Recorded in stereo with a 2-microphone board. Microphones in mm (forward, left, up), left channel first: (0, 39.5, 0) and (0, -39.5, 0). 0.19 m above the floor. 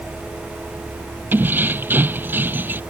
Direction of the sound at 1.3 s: 25° right (ahead or behind).